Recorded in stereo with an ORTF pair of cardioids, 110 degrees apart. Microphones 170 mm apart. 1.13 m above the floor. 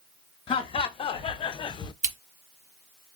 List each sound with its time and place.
0.5 s laughter: 35° left, 1.2 m; by 1.9 s 40° left, 0.5 m
2.0 s scissors: 40° right, 1.6 m